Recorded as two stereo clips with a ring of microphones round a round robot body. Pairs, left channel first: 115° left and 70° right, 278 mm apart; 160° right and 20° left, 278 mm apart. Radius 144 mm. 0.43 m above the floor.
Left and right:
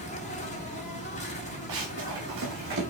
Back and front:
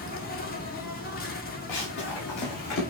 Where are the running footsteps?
115° right, 4.5 m; by 2.8 s 125° right, 4.5 m.